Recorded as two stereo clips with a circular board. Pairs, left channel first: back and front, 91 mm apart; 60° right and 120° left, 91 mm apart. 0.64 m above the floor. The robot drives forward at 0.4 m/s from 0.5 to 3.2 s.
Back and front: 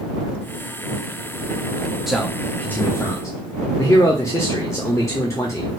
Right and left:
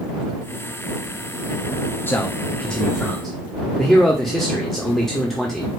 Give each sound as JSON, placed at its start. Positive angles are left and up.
{"t": 2.1, "sound": "a man speaking", "azimuth_deg": -85, "distance_m": 0.6}